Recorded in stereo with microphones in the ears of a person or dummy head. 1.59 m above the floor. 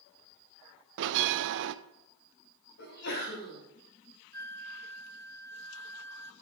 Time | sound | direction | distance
1.0 | a bell | 70° right (ahead or behind) | 0.6 m
2.8 | a sneeze | 60° left (ahead or behind) | 4.5 m
4.3 | a flute | 15° left (ahead or behind) | 0.6 m